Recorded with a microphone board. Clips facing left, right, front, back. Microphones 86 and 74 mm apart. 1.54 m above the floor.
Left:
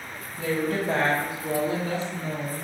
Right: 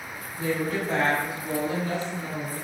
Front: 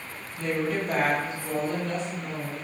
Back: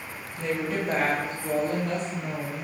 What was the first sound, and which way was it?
A woman speaking, 115° left.